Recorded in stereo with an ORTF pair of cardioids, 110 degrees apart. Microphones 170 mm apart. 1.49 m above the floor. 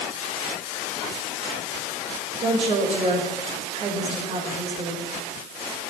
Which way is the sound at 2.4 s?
40° right.